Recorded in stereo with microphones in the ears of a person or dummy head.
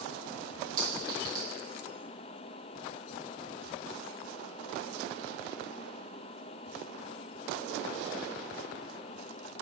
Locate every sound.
0.8 s a clink: 25° right (ahead or behind), 1.1 m